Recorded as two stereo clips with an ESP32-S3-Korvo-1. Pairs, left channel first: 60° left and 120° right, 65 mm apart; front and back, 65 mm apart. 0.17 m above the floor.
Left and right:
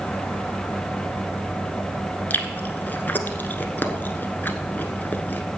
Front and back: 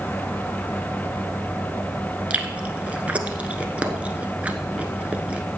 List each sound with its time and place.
2.3 s chewing: 115° left, 0.9 m